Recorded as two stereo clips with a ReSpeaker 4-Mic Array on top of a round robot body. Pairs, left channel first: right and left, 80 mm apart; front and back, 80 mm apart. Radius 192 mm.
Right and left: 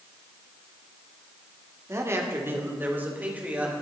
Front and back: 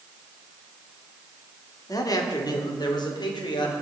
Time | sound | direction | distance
1.9 | a man speaking | 40° left | 2.5 m